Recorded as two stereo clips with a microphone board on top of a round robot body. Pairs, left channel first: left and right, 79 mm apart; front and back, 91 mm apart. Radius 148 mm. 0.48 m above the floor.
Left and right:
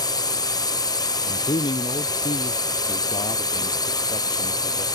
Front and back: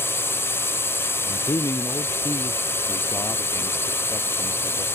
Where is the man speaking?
65° left.